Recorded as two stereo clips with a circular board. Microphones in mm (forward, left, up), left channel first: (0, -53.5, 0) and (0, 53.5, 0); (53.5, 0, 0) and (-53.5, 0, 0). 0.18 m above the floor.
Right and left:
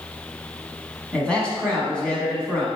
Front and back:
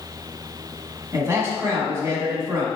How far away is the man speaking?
About 1.4 m.